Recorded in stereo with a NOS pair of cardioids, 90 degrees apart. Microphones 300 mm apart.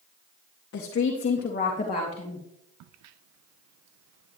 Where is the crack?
65° right, 0.6 m.